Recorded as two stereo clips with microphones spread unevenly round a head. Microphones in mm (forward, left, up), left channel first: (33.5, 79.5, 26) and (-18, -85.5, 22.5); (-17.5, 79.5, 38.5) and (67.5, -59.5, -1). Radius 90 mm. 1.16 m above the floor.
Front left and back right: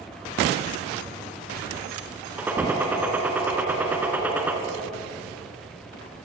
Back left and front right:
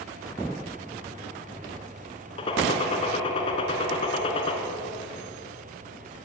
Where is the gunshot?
170° left, 2 m.